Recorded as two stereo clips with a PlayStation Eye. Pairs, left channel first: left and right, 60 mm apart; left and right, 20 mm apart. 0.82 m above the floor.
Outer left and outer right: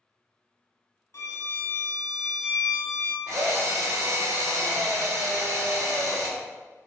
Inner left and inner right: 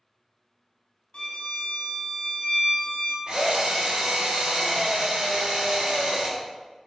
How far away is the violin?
About 1.0 m.